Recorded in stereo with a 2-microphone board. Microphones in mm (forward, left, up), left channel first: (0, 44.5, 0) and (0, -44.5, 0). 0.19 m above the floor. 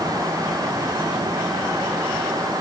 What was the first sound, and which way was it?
Only background noise.